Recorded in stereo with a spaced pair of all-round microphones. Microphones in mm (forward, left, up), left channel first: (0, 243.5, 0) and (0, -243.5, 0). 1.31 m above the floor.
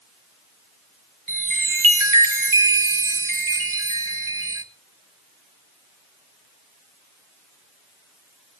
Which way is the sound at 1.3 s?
75° right (ahead or behind).